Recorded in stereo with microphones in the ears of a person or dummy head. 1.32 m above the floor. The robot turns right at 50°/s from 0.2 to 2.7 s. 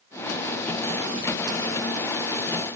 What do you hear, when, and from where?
Only background noise.